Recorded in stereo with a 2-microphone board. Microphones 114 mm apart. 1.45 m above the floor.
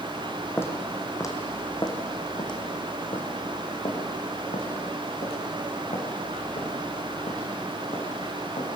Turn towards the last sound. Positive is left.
turn(degrees=75)  # may be behind; listen again after turning